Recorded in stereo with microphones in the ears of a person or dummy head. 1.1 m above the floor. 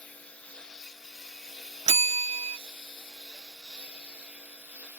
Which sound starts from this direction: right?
A bell, at 1.9 s.